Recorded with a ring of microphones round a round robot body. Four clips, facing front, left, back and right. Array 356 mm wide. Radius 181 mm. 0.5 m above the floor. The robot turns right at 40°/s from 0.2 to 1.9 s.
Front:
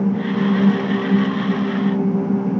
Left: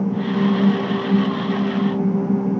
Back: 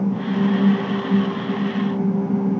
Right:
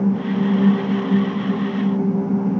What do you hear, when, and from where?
Only background noise.